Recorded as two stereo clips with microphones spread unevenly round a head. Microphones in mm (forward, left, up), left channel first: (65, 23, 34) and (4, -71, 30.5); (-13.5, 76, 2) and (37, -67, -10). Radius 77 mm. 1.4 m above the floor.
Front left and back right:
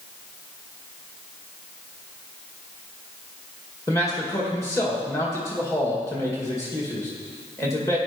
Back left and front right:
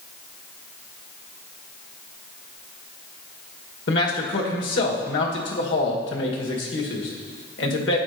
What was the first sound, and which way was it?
A man speaking, 125° left.